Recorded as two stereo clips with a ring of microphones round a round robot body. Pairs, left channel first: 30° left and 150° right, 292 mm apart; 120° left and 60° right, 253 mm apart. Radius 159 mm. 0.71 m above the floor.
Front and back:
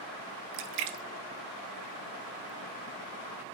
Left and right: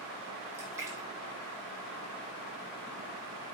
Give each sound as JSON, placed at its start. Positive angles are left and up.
{"t": 0.5, "sound": "a splash", "azimuth_deg": -140, "distance_m": 0.5}